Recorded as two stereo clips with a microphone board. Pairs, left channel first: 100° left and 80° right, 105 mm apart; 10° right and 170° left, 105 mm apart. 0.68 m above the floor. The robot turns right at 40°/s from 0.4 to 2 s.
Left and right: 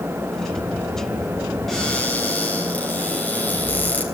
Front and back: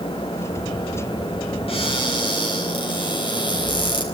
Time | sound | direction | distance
1.7 | a cupboard door | 10° left | 3 m